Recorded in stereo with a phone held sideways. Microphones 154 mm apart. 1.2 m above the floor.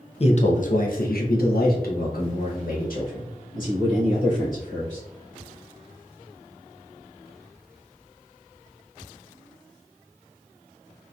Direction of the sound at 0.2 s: 40° left (ahead or behind).